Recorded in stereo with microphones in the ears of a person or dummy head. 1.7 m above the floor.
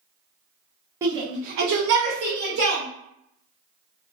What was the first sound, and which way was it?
A shout, 20° right (ahead or behind).